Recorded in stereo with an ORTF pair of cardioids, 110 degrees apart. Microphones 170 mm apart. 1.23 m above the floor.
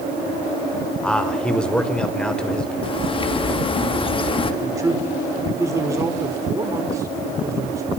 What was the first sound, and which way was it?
A man speaking, 5° left.